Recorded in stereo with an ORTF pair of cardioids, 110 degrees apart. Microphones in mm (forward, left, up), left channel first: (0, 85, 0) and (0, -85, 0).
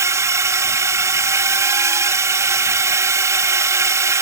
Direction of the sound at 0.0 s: 15° right.